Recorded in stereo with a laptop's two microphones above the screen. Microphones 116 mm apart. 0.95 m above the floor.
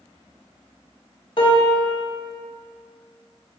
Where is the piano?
45° left (ahead or behind), 0.9 m.